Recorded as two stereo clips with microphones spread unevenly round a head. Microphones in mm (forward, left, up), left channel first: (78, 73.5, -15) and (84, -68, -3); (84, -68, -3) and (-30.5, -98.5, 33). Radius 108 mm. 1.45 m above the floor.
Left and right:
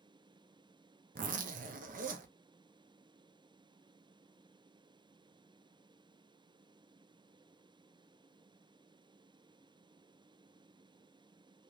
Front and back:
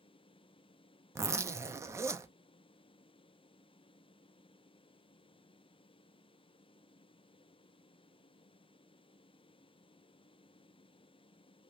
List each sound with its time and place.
1.1 s a zipper: 85° right, 0.5 m